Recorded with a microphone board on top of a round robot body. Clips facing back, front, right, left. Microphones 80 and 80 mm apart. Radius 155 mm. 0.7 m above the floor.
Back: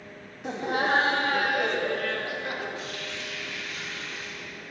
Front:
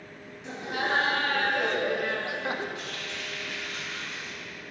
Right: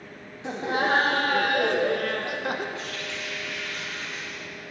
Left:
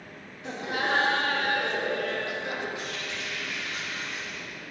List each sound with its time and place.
0.4 s laughter: 150° right, 1.2 m; by 2.6 s 55° right, 1.4 m
2.8 s a running tap: 15° left, 4.5 m